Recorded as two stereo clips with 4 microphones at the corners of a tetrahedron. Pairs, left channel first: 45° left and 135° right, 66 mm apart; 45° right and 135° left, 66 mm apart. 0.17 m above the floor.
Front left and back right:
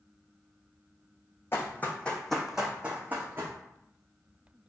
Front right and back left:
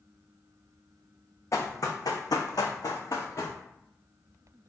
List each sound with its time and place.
1.5 s running footsteps: 5° right, 0.7 m; by 3.6 s 80° right, 0.9 m